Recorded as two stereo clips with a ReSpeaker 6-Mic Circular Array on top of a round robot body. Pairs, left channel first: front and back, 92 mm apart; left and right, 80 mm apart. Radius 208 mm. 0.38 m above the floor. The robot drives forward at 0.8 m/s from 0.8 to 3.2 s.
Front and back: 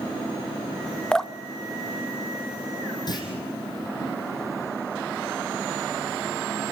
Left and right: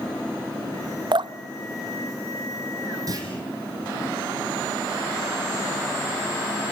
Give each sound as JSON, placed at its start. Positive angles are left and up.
{"t": 1.1, "sound": "dripping", "azimuth_deg": -80, "distance_m": 0.9}
{"t": 3.1, "sound": "a clunk", "azimuth_deg": -45, "distance_m": 4.5}